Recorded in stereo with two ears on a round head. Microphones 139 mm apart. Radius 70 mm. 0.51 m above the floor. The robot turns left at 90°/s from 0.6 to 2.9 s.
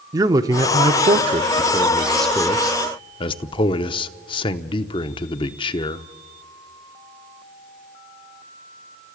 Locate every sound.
0.1 s a man speaking: 40° right, 0.7 m; by 6.0 s 115° left, 0.7 m